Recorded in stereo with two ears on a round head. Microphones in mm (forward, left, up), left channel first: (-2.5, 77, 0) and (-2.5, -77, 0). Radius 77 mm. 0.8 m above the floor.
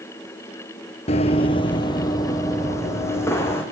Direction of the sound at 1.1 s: 40° left (ahead or behind).